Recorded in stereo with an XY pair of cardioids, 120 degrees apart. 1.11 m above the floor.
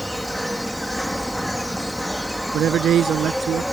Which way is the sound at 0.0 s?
Straight ahead.